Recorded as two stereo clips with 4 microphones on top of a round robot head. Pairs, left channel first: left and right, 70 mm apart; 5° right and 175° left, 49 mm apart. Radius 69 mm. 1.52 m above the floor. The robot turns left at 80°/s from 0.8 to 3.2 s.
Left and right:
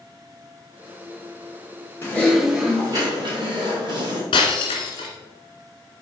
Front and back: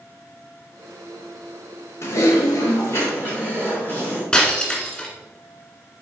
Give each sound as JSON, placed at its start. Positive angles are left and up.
{"t": 2.0, "sound": "typing on a keyboard", "azimuth_deg": 25, "distance_m": 2.0}
{"t": 4.3, "sound": "breaking glass", "azimuth_deg": 65, "distance_m": 2.0}